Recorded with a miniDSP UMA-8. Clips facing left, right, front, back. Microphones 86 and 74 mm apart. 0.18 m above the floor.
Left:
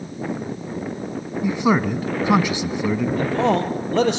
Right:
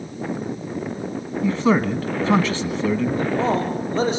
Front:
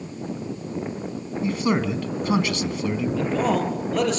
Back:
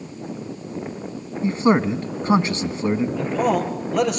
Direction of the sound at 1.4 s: 155° left.